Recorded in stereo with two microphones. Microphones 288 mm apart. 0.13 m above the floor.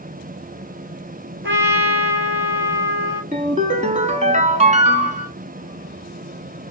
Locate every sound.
1.4 s a trumpet: 45° right (ahead or behind), 0.7 m
3.3 s a ringtone: 25° right (ahead or behind), 0.7 m